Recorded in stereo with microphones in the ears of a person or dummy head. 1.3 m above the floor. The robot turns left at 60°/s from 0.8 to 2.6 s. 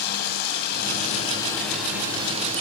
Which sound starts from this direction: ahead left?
Running water, at 0.0 s.